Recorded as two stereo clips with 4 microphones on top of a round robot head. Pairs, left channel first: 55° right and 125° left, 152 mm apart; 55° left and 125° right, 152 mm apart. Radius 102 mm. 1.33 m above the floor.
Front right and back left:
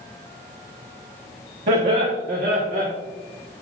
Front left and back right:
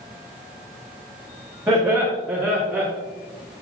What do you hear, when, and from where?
1.7 s laughter: 155° left, 1.5 m; by 2.9 s 150° left, 2 m